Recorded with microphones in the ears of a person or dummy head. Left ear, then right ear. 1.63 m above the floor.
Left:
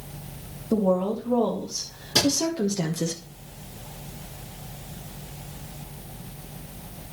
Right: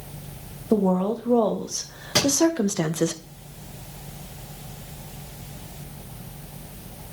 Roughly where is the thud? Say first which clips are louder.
Even; right.